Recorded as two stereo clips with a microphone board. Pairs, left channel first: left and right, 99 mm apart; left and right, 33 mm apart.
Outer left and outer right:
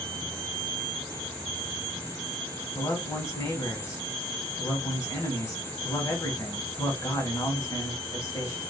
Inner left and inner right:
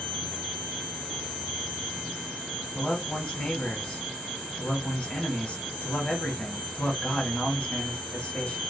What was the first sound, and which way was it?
A man speaking, 30° left (ahead or behind).